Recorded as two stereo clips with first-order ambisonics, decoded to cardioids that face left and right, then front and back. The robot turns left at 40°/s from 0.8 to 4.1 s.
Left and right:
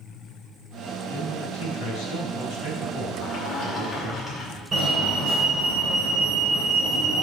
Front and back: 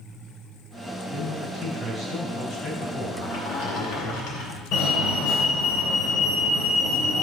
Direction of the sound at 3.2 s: 40° left.